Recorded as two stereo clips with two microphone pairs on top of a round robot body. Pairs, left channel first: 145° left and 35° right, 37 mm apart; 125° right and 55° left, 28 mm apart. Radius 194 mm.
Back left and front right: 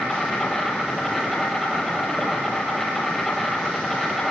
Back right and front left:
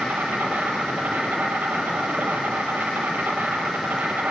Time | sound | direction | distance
0.0 | an insect | 65° left | 4 m